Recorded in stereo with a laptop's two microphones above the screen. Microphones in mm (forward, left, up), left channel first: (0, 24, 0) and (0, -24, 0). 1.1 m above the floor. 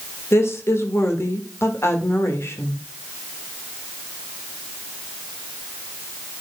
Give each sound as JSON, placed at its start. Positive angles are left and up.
{"t": 0.3, "sound": "a woman speaking", "side_deg": 60, "distance_m": 1.8}